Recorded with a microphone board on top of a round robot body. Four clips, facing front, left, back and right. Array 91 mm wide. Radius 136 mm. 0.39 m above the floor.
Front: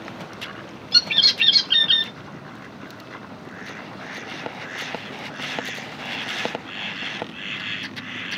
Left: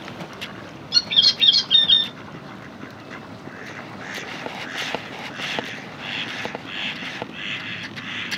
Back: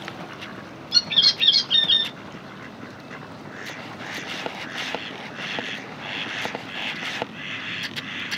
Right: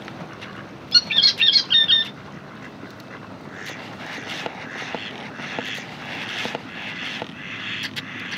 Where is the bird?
50° right, 1.0 m.